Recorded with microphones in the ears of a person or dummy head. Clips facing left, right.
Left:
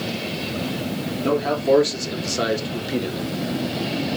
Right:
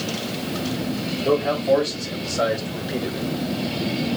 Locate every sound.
1.2 s a man speaking: 70° left (ahead or behind), 1.9 m; by 3.3 s 10° left (ahead or behind), 0.8 m